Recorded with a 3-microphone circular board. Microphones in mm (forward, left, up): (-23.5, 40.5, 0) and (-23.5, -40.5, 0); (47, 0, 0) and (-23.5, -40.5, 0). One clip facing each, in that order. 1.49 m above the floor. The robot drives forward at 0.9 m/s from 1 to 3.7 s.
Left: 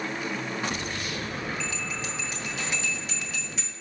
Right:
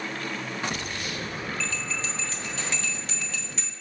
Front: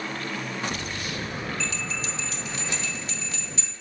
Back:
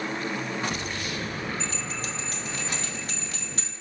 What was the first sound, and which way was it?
A bell, 165° left.